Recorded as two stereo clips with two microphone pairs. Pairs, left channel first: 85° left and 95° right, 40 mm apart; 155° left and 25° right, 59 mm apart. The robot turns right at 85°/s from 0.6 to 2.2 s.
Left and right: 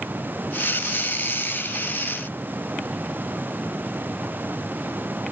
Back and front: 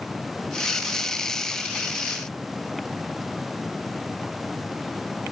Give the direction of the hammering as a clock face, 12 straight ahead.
I don't hear hammering.